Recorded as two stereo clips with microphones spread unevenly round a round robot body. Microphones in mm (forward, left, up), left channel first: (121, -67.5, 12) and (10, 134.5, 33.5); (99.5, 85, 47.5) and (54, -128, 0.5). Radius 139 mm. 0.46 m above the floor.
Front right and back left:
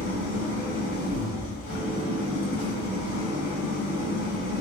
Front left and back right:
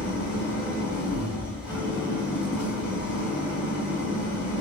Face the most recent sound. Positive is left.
turn(degrees=-25)